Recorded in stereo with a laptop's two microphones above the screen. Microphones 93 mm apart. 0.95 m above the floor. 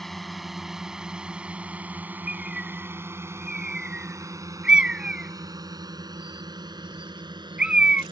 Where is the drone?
Centre (ahead or behind); by 8.1 s 55° right (ahead or behind).